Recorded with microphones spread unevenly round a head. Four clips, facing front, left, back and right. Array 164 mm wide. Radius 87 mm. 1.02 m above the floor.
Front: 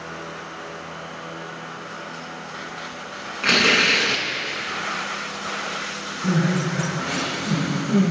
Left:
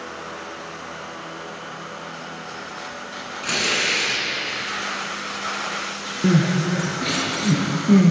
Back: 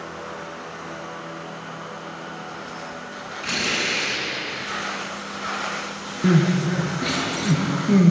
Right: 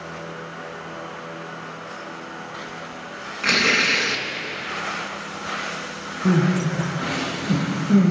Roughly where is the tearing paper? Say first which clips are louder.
Right 4 dB, front 8 dB; ahead.